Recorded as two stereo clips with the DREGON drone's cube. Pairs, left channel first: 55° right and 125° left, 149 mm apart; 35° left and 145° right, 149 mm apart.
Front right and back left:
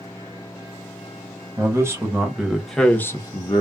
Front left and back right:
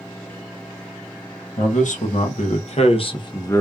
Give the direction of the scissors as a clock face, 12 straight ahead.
I don't hear scissors.